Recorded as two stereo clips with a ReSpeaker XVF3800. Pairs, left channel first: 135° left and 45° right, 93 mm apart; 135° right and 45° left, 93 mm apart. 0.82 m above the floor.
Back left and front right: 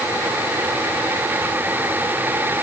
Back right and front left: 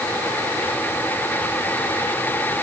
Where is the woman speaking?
I don't hear a woman speaking.